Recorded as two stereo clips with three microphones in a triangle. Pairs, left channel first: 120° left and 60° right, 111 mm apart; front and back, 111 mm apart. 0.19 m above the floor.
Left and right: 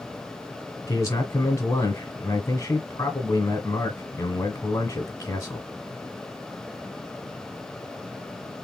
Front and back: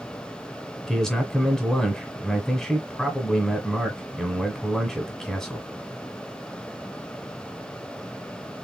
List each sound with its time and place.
0.9 s a man speaking: 85° left, 1.5 m